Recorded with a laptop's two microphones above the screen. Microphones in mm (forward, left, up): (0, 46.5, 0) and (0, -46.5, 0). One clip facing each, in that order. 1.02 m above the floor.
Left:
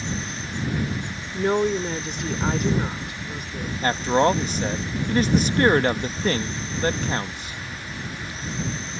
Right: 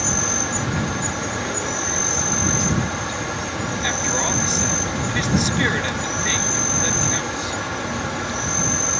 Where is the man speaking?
40° left (ahead or behind).